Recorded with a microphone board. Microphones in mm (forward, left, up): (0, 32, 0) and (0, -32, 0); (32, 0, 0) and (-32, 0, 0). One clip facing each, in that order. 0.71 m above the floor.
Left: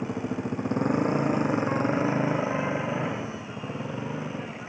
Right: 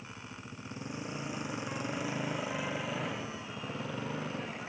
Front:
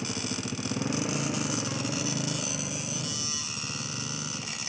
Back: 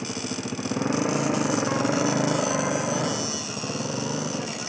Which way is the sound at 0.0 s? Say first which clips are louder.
Left 17 dB, back 3 dB; 110° left.